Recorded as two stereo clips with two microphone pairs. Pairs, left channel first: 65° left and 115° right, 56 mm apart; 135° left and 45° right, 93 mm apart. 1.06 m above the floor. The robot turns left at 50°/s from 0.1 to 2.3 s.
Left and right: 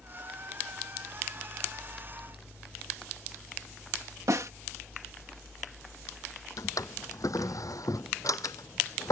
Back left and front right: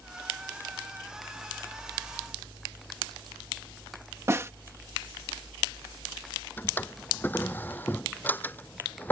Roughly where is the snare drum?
Right.